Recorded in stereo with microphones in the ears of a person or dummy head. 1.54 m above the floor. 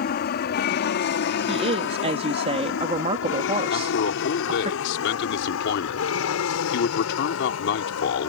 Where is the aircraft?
50° left (ahead or behind); by 8.3 s 75° left (ahead or behind).